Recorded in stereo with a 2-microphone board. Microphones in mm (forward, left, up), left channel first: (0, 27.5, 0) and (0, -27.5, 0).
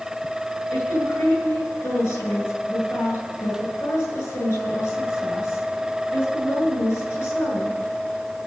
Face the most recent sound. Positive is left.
turn(degrees=70)  # may be behind; listen again after turning